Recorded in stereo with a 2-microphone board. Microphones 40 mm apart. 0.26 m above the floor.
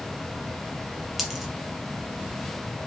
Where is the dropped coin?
5° right (ahead or behind), 1.7 m.